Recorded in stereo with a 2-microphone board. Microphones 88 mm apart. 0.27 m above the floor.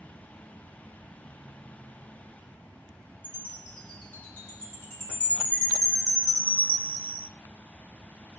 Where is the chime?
20° left (ahead or behind), 2 m.